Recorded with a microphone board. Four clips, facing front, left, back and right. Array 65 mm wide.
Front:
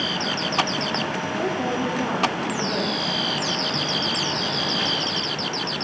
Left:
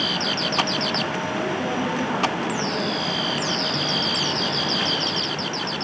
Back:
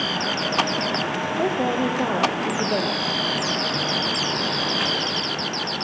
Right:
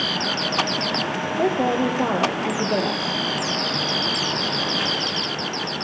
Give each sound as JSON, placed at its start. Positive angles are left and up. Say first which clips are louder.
{"t": 1.4, "sound": "a woman speaking", "louder": "right 8 dB, back 3 dB", "azimuth_deg": -120, "distance_m": 3.0}